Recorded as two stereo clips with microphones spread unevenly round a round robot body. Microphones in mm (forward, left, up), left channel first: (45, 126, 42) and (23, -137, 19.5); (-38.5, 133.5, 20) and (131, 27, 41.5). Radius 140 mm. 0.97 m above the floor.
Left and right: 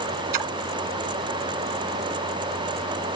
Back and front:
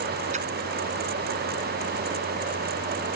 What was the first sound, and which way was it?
A splash, 100° right.